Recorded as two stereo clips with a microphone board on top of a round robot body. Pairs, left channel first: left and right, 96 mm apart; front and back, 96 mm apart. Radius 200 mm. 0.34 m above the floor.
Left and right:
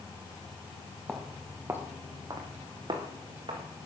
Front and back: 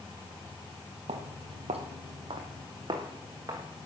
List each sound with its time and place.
1.1 s footsteps: 175° left, 1.0 m; by 3.7 s 125° right, 1.9 m